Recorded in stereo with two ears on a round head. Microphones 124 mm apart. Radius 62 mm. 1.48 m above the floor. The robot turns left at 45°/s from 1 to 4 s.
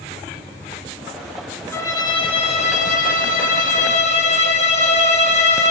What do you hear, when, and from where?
1.7 s a violin: 160° left, 1.4 m; by 5.7 s 55° left, 1.4 m